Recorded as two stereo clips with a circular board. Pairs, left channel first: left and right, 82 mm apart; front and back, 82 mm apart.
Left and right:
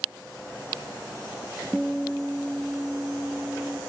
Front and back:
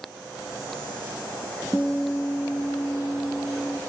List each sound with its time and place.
1.7 s a guitar: 5° left, 0.6 m